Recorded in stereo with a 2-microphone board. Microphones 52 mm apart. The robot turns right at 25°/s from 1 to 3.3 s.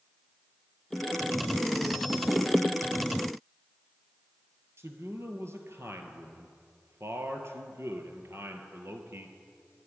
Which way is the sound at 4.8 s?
55° right (ahead or behind).